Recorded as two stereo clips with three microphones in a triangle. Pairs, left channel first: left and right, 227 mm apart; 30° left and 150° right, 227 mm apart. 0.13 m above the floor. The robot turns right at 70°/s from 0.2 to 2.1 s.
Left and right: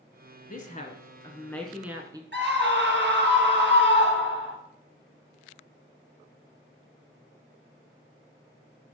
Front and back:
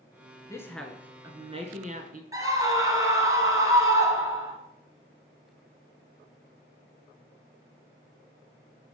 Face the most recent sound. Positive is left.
turn(degrees=-75)